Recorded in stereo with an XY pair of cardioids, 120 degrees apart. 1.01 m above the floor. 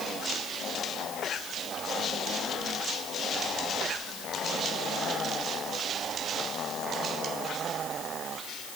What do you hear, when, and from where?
Only background noise.